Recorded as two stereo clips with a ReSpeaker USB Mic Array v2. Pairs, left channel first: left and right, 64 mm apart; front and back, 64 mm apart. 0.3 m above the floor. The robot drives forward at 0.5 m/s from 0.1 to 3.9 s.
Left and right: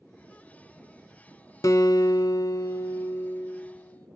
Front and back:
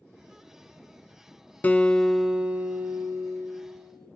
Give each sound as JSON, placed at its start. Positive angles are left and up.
{"t": 1.6, "sound": "a guitar", "azimuth_deg": 65, "distance_m": 0.6}